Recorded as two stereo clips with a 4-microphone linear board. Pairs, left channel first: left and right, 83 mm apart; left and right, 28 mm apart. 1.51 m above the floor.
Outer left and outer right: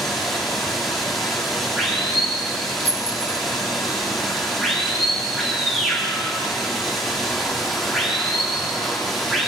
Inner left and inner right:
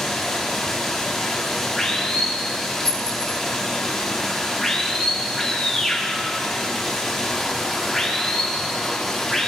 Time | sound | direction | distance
0.0 | running water | centre (ahead or behind) | 4 m
2.9 | a clink | 20° left (ahead or behind) | 5 m